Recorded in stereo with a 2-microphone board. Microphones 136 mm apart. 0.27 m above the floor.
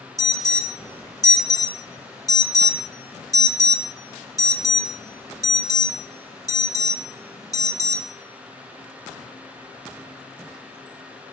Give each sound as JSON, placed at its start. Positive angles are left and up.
{"t": 0.2, "sound": "an alarm", "side_deg": 25, "distance_m": 0.7}